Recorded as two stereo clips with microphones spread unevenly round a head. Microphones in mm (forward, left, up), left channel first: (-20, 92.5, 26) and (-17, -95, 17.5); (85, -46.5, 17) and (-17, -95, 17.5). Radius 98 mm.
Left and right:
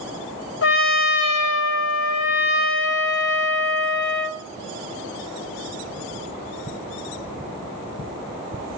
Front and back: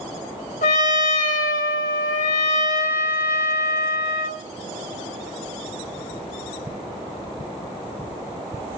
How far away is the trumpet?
About 1.9 m.